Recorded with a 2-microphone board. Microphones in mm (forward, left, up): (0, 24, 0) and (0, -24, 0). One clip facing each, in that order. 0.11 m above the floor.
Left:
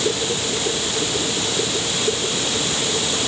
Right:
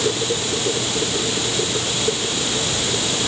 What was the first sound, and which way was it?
Only background noise.